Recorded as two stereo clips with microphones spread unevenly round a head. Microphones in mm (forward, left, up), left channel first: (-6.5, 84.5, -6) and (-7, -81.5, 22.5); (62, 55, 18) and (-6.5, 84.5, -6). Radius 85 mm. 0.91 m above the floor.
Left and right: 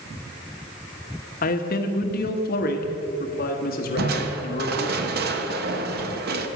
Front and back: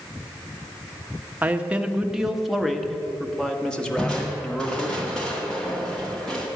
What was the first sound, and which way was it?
A man speaking, 100° left.